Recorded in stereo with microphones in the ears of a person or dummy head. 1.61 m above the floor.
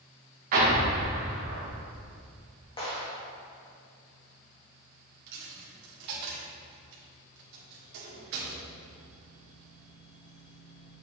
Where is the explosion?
50° right (ahead or behind), 2 m.